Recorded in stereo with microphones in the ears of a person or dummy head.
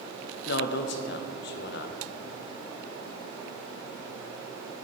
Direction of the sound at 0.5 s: 65° left (ahead or behind).